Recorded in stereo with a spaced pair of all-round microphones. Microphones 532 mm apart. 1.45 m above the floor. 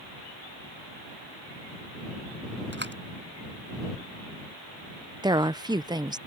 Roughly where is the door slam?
Right.